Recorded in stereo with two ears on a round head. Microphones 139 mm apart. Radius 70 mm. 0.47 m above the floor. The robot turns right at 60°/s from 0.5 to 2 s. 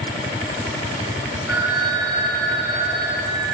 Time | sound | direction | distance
1.5 | a phone ringing | 175° right | 4.5 m